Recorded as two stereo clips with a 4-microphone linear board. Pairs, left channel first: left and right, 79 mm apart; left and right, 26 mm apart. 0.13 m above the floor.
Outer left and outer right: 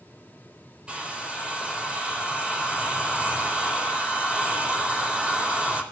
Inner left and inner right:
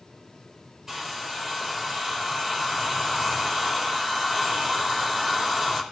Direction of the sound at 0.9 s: 15° right (ahead or behind).